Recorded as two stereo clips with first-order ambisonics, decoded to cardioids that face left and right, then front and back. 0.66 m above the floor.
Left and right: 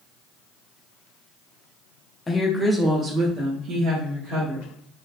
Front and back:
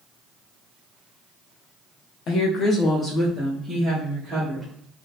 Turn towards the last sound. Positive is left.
turn(degrees=-105)